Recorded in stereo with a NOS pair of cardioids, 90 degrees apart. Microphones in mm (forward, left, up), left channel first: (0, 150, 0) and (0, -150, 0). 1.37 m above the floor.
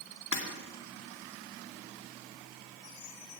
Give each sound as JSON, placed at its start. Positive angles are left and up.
{"t": 0.3, "sound": "breaking glass", "azimuth_deg": 65, "distance_m": 2.0}